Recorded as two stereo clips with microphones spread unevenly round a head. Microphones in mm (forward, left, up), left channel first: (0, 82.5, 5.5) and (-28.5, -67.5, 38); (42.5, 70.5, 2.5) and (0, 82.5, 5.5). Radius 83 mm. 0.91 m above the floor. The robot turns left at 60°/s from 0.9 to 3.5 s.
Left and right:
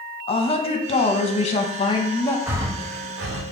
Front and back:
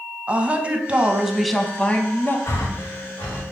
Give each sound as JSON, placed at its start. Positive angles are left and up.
{"t": 0.3, "sound": "a woman speaking", "azimuth_deg": 105, "distance_m": 0.7}
{"t": 2.5, "sound": "breathing", "azimuth_deg": -20, "distance_m": 0.5}